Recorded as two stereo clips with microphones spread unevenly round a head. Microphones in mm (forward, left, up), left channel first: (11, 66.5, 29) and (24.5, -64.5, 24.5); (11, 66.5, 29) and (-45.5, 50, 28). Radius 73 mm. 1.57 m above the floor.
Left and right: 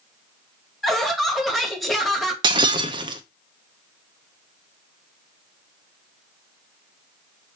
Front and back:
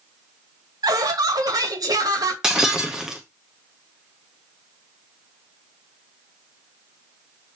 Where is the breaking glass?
90° right, 0.7 m.